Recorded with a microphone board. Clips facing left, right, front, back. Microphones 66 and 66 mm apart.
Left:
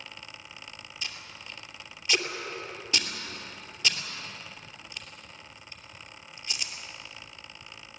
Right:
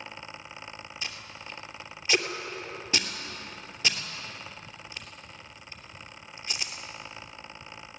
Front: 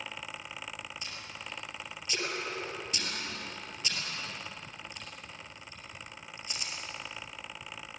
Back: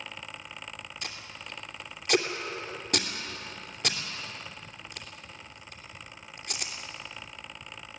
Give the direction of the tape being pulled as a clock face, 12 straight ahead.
5 o'clock.